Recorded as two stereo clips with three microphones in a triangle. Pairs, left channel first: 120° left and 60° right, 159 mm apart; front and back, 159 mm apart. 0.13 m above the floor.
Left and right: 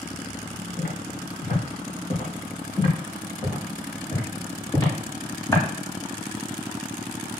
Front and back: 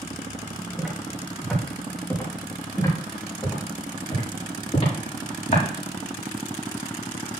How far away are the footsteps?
About 4 m.